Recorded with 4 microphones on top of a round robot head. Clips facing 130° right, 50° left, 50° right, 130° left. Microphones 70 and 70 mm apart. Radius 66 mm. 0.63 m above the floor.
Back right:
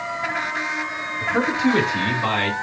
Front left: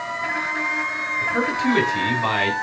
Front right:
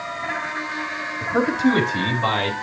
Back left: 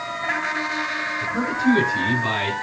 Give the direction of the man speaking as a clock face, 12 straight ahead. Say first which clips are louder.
Back right 2 dB, front right 4 dB; 2 o'clock.